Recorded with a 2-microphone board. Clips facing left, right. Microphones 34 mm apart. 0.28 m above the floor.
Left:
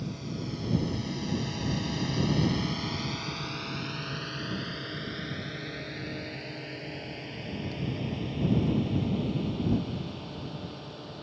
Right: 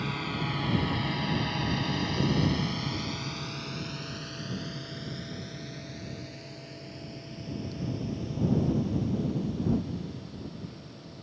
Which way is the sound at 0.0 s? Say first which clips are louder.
Right 5 dB; 60° right (ahead or behind).